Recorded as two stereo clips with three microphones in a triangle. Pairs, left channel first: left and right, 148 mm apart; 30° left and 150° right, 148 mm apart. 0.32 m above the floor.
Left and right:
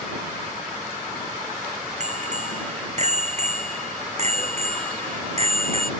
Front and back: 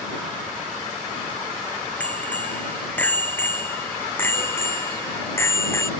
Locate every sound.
2.0 s a bicycle bell: 50° right; by 5.9 s 40° right